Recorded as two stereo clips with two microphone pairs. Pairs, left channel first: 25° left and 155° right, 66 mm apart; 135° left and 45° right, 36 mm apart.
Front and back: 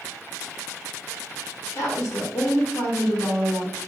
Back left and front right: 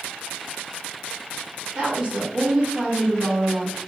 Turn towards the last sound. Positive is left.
turn(degrees=5)